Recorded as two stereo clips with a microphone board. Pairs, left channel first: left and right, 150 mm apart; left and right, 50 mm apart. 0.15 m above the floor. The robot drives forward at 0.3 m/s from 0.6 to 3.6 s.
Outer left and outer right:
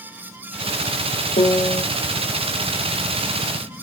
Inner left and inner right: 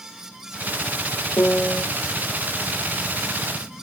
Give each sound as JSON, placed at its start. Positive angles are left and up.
{"t": 1.4, "sound": "a piano", "side_deg": 65, "distance_m": 0.6}